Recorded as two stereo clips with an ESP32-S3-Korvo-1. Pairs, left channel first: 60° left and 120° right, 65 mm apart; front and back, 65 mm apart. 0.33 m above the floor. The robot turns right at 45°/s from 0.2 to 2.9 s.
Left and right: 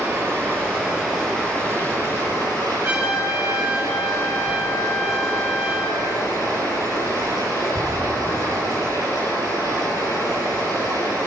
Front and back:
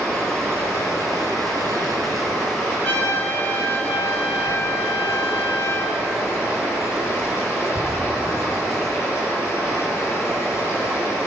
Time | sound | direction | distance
0.0 | running water | 75° right | 6.5 m
2.8 | a trumpet | 60° right | 4.5 m